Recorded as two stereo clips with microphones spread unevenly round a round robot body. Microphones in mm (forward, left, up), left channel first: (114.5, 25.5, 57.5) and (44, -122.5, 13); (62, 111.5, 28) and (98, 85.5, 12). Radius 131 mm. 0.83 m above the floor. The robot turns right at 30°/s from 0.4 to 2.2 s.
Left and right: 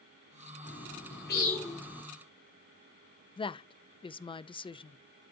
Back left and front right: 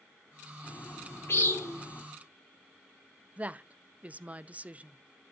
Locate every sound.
0.6 s a bird: 95° left, 2.5 m; by 2.0 s 135° left, 2.5 m
3.4 s a woman speaking: 5° right, 0.6 m